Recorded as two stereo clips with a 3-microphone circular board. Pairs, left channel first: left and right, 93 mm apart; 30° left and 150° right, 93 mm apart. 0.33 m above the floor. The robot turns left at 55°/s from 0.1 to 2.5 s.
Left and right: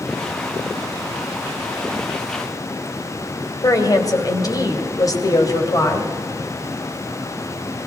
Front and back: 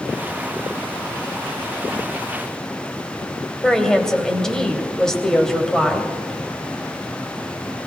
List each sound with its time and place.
3.6 s a woman speaking: 110° left, 2.0 m